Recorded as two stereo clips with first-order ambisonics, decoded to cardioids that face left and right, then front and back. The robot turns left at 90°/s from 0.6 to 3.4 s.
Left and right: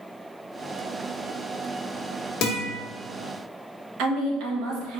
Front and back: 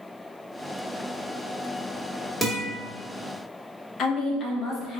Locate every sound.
2.4 s a guitar: 85° left, 1.3 m; by 2.7 s 55° left, 1.3 m
4.0 s a woman speaking: 60° right, 1.1 m